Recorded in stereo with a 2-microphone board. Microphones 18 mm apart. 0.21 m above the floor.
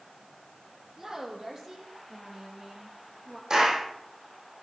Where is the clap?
30° right (ahead or behind), 7 m.